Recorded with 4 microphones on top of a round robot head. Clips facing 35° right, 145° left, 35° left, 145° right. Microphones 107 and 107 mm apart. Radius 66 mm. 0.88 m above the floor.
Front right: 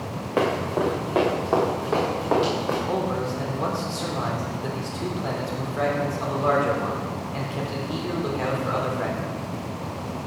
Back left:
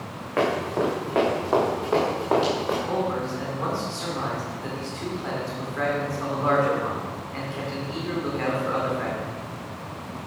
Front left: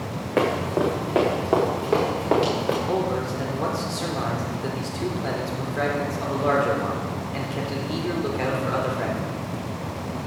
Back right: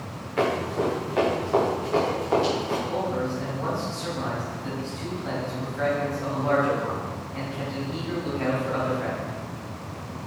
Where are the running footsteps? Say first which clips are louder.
Even, front left 2 dB; 40° left, 4 m; by 2.8 s 60° left, 5 m.